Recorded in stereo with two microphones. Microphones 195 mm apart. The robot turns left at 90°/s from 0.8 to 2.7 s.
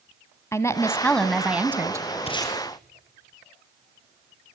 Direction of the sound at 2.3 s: 35° left (ahead or behind).